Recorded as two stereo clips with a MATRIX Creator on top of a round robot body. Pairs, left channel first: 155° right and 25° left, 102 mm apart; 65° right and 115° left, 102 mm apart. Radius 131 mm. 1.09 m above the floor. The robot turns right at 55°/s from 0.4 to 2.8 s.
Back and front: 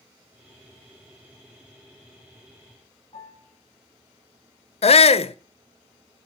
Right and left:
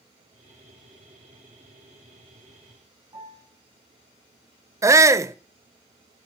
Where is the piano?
165° left, 10 m.